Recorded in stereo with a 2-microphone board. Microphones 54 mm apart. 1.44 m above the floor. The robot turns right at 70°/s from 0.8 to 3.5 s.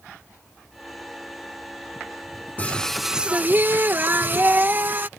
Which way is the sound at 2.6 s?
150° left.